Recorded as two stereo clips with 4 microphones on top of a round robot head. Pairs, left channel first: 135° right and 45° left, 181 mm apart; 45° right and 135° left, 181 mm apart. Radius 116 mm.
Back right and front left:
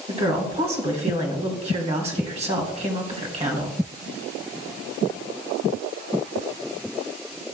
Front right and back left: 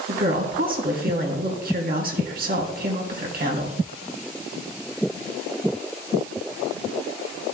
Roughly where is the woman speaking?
Left.